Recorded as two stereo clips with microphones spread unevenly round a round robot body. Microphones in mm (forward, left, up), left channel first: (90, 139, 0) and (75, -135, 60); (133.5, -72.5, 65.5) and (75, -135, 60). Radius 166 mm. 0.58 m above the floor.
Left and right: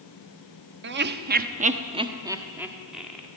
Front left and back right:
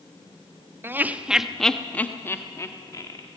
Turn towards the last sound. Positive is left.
turn(degrees=5)